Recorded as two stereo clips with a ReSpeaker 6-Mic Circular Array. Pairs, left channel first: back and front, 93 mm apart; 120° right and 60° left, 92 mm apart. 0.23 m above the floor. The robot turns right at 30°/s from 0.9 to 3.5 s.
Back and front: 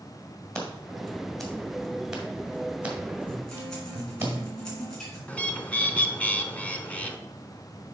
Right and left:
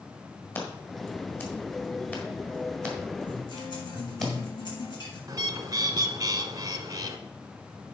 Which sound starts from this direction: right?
A guitar, at 3.3 s.